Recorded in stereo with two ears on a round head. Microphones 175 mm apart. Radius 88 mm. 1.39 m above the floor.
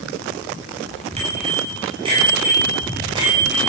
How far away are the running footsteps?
I don't hear running footsteps.